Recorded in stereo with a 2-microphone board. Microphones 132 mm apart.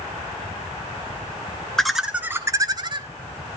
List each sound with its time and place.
1.8 s laughter: 5° left (ahead or behind), 1.1 m; by 3.1 s 40° right (ahead or behind), 1.3 m